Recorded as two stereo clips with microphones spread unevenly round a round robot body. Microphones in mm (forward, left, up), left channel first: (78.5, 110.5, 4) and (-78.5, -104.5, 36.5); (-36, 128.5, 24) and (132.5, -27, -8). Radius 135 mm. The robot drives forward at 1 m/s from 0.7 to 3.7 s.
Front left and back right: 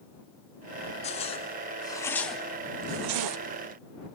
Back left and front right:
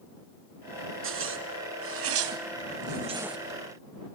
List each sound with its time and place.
1.0 s a zipper: 15° right, 2 m; by 3.4 s 130° right, 0.6 m